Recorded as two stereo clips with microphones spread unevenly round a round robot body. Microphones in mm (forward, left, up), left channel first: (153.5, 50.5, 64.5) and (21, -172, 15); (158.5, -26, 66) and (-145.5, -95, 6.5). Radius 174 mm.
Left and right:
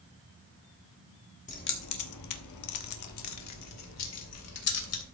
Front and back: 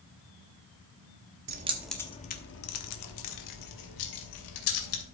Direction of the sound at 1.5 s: 130° left.